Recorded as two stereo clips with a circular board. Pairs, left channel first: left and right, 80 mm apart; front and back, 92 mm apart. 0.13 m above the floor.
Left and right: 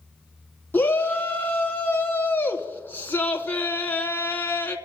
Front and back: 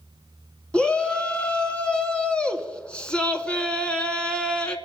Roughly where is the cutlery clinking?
I don't hear cutlery clinking.